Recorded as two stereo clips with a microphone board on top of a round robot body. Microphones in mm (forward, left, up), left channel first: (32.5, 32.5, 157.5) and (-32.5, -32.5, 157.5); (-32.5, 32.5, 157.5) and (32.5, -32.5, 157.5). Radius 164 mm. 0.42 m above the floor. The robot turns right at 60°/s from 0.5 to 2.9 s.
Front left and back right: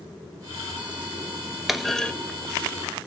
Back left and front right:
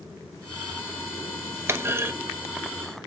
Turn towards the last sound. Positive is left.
turn(degrees=25)